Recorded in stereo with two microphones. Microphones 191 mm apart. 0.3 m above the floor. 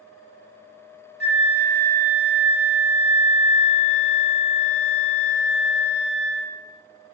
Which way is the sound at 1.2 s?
60° left (ahead or behind).